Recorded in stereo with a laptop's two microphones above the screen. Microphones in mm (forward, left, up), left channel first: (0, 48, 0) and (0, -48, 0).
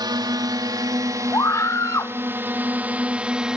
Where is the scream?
35° left (ahead or behind).